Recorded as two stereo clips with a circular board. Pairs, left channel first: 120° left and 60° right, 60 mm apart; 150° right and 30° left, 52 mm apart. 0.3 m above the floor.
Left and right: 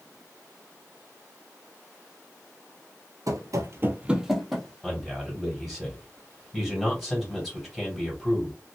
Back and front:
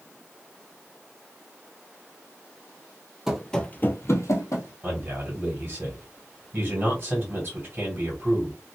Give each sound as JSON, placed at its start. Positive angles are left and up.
{"t": 3.3, "sound": "running footsteps", "azimuth_deg": -50, "distance_m": 0.6}
{"t": 4.8, "sound": "a man speaking", "azimuth_deg": 35, "distance_m": 1.8}